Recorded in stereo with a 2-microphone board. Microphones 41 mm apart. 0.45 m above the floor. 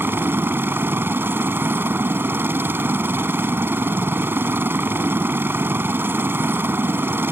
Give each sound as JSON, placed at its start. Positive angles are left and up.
{"t": 0.0, "sound": "a helicopter", "side_deg": -65}